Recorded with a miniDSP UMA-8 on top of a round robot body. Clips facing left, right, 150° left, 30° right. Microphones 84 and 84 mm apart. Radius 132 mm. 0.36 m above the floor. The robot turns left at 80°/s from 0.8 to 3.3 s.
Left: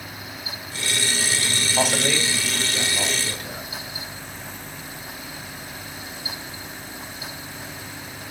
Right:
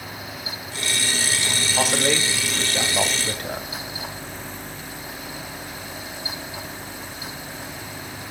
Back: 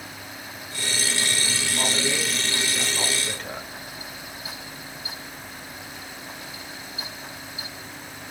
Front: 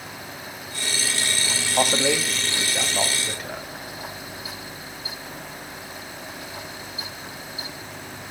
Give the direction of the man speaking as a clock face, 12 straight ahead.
12 o'clock.